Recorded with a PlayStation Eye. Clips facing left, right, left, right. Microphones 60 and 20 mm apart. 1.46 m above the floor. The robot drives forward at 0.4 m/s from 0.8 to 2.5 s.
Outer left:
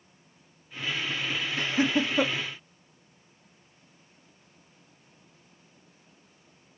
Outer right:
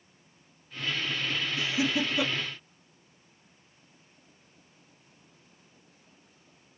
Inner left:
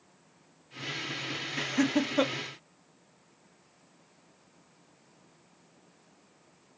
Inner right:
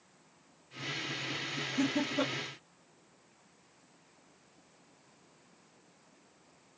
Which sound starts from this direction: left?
Laughter, at 1.6 s.